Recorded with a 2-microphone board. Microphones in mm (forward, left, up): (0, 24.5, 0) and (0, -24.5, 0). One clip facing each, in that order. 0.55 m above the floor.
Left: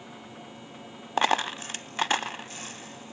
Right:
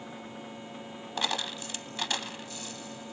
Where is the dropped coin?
45° left (ahead or behind), 0.5 m.